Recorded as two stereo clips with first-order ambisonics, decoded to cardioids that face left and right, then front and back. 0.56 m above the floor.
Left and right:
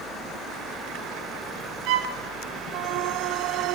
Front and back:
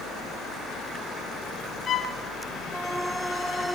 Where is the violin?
60° right, 1.5 m.